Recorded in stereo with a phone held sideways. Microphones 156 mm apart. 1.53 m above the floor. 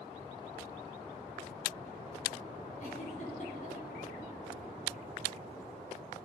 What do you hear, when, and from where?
2.8 s a giggle: 50° left (ahead or behind), 4.5 m